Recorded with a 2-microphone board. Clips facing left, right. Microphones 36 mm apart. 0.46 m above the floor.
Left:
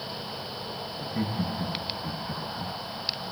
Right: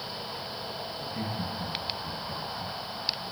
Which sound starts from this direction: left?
Laughter, at 1.0 s.